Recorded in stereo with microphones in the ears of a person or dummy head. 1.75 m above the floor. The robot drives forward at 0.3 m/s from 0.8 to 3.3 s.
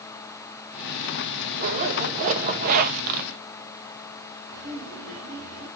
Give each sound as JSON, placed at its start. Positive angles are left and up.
{"t": 1.6, "sound": "a zipper", "side_deg": -40, "distance_m": 2.0}
{"t": 4.5, "sound": "laughter", "side_deg": -55, "distance_m": 4.0}